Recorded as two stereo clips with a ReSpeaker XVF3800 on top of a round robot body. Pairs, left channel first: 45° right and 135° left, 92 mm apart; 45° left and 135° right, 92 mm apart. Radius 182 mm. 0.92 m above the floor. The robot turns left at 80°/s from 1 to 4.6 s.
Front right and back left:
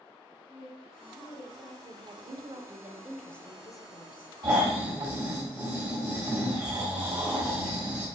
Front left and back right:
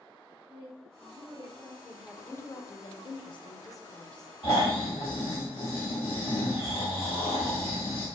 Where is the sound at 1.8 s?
150° left, 0.7 m; by 4.3 s 50° right, 0.7 m.